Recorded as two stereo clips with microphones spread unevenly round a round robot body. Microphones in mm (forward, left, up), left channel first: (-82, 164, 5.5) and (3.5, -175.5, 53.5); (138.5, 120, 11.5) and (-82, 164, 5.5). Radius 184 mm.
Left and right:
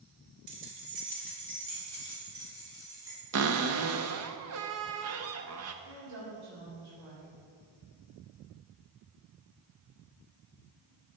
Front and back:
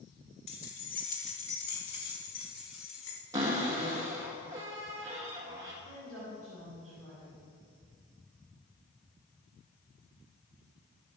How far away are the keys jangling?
About 2 m.